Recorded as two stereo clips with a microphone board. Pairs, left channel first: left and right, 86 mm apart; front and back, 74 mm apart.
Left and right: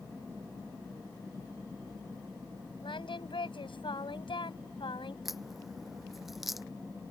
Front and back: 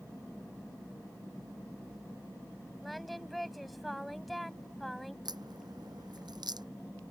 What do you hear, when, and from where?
2.8 s singing: 90° left
5.2 s a crack: straight behind